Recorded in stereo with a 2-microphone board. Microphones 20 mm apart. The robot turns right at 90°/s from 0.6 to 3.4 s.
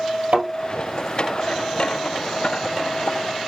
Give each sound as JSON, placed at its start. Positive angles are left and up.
{"t": 0.3, "sound": "a thud", "side_deg": -75, "distance_m": 2.0}